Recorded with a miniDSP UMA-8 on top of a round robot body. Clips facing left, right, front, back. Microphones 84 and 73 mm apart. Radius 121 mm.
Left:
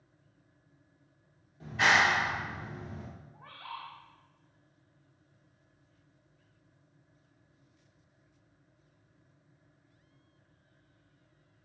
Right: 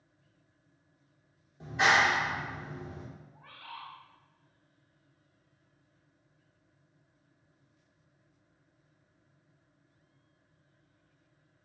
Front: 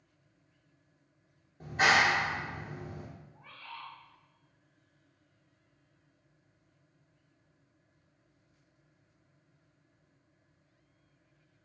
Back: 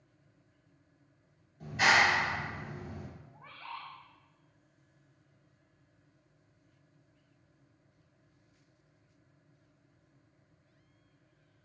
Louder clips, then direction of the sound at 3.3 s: Left 4 dB, back 4 dB; 130° left.